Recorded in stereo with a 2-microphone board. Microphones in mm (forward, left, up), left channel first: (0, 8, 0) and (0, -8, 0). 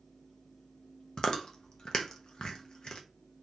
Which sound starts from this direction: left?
Chewing, at 1.2 s.